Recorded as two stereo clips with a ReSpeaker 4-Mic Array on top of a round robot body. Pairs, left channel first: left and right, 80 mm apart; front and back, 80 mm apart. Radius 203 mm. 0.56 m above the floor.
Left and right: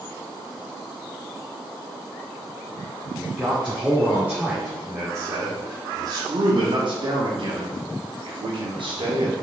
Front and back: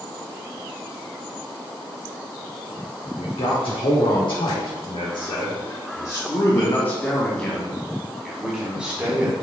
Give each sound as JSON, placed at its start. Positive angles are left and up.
{"t": 3.2, "sound": "a man speaking", "azimuth_deg": -10, "distance_m": 2.5}